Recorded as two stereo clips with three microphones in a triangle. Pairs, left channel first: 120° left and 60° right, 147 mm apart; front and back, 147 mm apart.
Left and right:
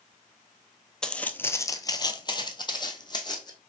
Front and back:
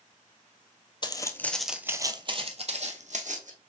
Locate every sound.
1.0 s footsteps: 35° left, 0.6 m; by 3.5 s 175° left, 1.1 m